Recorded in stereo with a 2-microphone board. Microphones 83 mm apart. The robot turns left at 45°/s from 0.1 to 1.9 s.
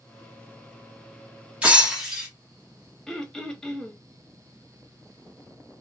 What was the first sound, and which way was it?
Breaking glass, 15° right (ahead or behind).